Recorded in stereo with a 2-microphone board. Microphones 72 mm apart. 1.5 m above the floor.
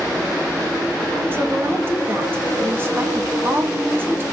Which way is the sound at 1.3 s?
30° right (ahead or behind).